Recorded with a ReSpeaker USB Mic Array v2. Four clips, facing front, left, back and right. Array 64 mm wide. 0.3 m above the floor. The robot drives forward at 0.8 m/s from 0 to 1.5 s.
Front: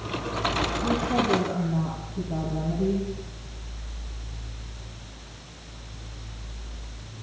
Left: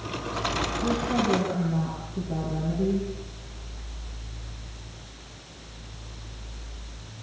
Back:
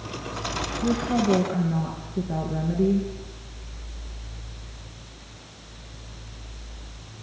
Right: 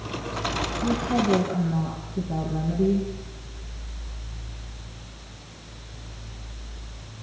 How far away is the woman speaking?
About 4 m.